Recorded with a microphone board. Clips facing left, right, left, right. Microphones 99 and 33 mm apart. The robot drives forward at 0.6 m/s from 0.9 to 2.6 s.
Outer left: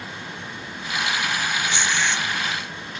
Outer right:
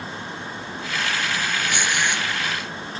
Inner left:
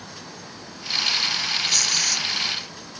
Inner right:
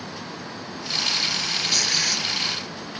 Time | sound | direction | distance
1.7 | tearing paper | 15° right (ahead or behind) | ?